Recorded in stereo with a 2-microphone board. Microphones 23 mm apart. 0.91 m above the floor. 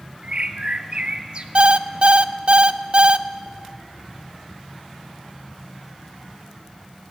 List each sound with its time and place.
0.2 s a bird: 50° right (ahead or behind), 1.2 m
1.6 s an alarm clock: 55° right (ahead or behind), 0.7 m